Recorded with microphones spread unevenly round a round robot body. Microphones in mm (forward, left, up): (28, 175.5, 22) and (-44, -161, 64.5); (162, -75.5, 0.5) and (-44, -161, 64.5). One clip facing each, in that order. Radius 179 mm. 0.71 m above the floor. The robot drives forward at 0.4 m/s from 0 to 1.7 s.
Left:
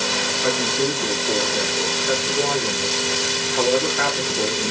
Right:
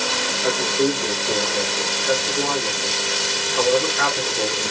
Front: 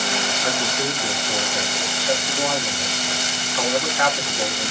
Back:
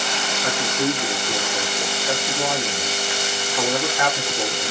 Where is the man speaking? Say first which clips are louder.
Right 2 dB, back 5 dB; 140° left, 1.2 m; by 4.7 s 160° left, 1.4 m.